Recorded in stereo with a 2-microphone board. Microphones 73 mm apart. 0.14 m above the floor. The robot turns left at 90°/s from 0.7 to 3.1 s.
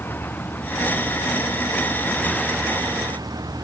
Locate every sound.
0.0 s a vehicle: 155° left; by 3.6 s 60° right